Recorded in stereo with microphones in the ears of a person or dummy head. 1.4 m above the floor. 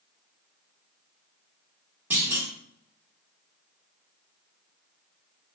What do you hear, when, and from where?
2.1 s a clunk: 10° right (ahead or behind), 1.1 m